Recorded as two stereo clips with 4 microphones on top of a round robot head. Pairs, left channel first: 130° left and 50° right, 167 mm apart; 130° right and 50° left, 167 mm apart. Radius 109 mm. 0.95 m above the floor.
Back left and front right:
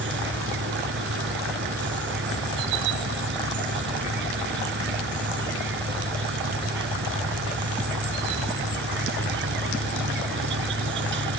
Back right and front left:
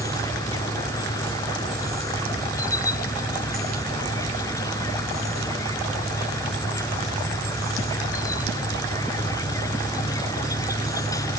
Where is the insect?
60° right.